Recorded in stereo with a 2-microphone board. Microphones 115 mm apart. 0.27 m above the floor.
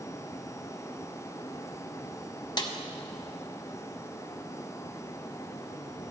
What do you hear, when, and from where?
2.6 s a snare drum: 40° left (ahead or behind), 0.7 m